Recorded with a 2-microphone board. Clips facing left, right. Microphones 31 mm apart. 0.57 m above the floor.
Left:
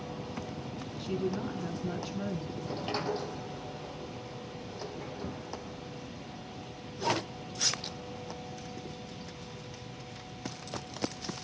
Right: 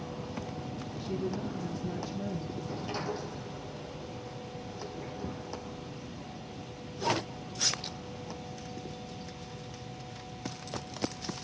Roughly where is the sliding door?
Left.